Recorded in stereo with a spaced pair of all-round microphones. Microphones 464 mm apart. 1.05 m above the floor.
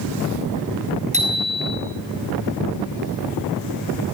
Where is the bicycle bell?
15° right (ahead or behind), 6 m.